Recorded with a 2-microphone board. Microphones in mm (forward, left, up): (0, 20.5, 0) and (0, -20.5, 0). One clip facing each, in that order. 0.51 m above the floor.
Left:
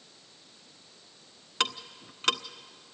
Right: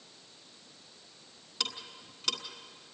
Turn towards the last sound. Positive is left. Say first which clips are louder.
# left 7 dB
turn(degrees=60)  # may be behind; listen again after turning